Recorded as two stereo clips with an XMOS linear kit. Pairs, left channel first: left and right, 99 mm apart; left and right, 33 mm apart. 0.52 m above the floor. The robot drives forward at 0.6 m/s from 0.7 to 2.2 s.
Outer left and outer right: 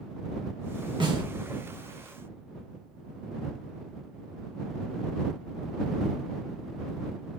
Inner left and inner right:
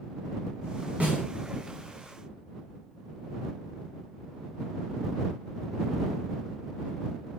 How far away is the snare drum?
About 1.3 m.